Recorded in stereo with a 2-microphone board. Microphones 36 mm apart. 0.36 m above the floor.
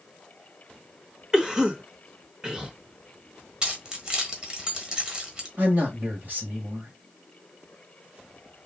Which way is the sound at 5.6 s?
55° right (ahead or behind).